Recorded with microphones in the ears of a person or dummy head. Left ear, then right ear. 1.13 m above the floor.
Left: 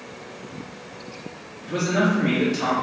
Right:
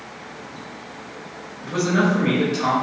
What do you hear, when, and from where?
1.6 s a man speaking: 65° right (ahead or behind), 1.3 m; by 2.7 s 25° left (ahead or behind), 0.7 m